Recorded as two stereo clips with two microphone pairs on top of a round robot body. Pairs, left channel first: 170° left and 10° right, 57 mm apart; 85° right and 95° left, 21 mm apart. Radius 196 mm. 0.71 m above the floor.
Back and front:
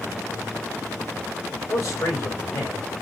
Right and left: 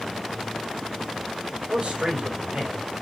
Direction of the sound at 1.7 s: 135° left.